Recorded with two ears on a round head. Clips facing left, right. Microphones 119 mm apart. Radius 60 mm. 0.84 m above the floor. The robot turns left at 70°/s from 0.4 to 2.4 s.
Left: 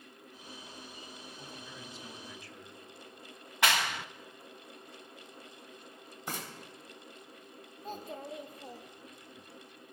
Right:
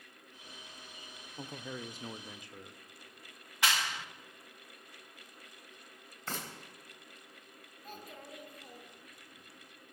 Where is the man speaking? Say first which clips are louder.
Right 10 dB; 85° right, 0.8 m; by 2.8 s 160° right, 0.8 m.